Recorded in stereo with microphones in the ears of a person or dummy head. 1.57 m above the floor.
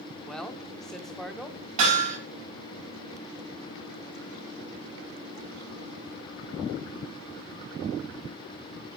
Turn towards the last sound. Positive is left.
turn(degrees=-40)  # may be behind; listen again after turning